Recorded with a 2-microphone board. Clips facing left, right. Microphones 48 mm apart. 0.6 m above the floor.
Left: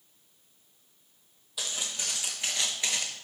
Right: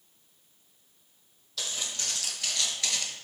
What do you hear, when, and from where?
1.6 s footsteps: 15° left (ahead or behind), 1.4 m